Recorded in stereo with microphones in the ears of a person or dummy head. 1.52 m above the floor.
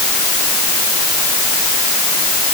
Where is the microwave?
I don't hear a microwave.